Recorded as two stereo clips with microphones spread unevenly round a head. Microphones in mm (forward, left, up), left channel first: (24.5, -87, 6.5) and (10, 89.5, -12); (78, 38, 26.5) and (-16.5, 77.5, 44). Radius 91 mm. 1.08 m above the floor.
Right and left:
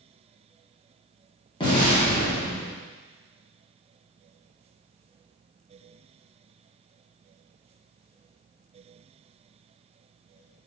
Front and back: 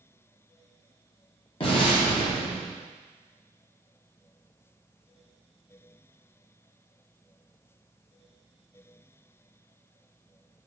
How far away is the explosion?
About 1.3 m.